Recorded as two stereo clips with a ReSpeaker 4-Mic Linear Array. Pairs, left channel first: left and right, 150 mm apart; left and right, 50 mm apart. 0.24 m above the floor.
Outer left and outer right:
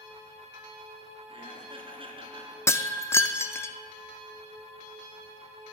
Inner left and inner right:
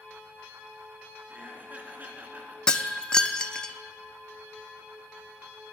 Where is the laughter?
35° right (ahead or behind), 2.5 m.